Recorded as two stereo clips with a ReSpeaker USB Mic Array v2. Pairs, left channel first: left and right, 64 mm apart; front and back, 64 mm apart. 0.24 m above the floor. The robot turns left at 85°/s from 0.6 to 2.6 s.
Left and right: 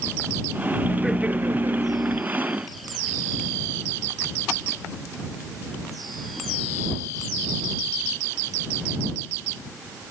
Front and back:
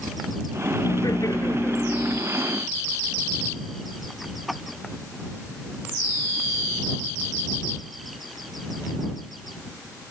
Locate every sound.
0.8 s laughter: 10° left; by 2.2 s 105° right